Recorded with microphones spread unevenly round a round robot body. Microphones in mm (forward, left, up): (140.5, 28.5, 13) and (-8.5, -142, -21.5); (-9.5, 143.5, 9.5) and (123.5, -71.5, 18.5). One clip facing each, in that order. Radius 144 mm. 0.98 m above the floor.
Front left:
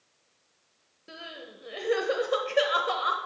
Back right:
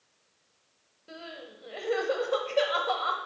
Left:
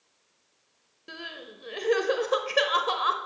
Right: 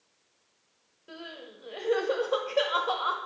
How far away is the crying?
About 0.8 m.